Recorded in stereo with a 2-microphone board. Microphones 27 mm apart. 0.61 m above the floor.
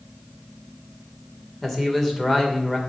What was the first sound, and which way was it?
A man speaking, 10° left (ahead or behind).